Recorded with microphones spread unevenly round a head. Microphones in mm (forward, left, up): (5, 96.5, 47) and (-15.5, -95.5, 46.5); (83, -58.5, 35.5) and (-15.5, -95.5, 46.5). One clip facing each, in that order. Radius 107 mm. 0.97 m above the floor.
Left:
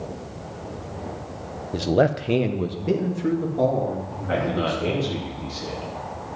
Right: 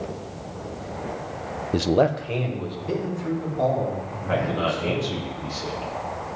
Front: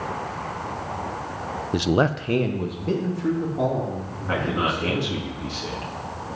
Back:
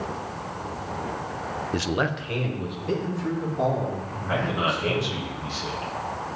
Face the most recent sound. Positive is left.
turn(degrees=5)